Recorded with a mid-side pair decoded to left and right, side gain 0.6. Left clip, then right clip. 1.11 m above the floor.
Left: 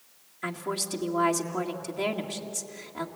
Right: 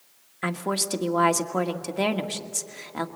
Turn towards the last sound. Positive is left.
turn(degrees=-45)